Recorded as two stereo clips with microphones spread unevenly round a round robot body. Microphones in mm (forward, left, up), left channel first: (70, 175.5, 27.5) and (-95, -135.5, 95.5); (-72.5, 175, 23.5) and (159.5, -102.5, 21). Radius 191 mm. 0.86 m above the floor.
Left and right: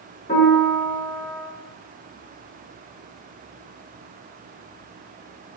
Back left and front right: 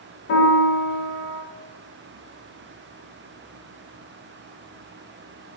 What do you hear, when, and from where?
0.3 s a piano: 130° left, 1.3 m